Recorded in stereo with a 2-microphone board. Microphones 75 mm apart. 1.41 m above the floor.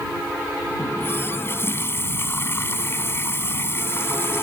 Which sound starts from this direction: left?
A running tap, at 0.8 s.